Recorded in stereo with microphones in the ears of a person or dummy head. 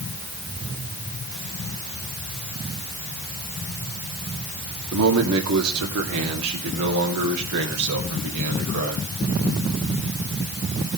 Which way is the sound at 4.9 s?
85° right.